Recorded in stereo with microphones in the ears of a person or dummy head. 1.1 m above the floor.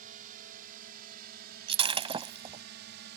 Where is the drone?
45° right (ahead or behind); by 3.2 s 60° right (ahead or behind).